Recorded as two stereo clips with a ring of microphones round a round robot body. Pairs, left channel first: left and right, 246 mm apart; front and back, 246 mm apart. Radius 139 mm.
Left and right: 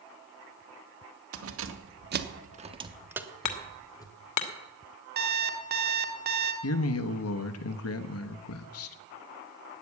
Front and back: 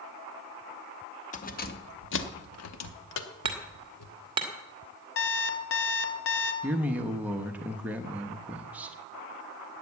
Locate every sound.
1.3 s keys jangling: 60° right, 1.4 m; by 4.1 s 15° left, 1.5 m
3.5 s hammering: 105° left, 1.4 m
5.2 s an alarm clock: 40° right, 1.5 m
6.6 s a man speaking: 95° left, 1.1 m